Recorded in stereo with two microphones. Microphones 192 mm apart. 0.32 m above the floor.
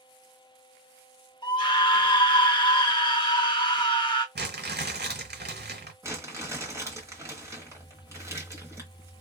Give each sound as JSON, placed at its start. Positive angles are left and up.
{"t": 1.4, "sound": "a scream", "side_deg": 25, "distance_m": 1.0}
{"t": 4.3, "sound": "crumpling", "side_deg": -65, "distance_m": 1.3}
{"t": 6.0, "sound": "crumpling", "side_deg": -15, "distance_m": 1.2}